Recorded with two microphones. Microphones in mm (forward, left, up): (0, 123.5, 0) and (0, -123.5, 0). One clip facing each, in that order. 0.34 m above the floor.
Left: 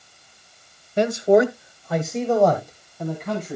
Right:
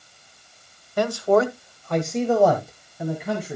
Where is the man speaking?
25° left (ahead or behind), 1.1 m; by 3.6 s 10° right (ahead or behind), 3 m.